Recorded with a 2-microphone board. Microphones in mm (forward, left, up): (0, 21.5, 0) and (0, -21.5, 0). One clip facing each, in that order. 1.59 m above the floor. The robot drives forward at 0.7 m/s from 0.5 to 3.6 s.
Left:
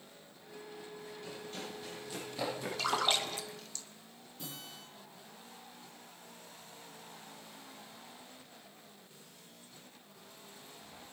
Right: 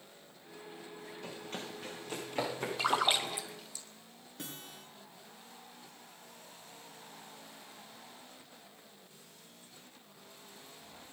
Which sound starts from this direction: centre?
A splash, at 2.8 s.